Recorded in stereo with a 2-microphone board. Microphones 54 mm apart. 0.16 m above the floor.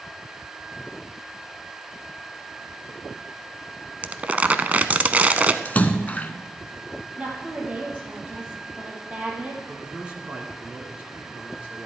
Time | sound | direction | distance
4.0 | crumpling | 30° right (ahead or behind) | 0.5 m
5.7 | a splash | 30° left (ahead or behind) | 0.7 m
7.2 | a woman speaking | 25° right (ahead or behind) | 4 m
9.7 | a man speaking | 20° right (ahead or behind) | 2 m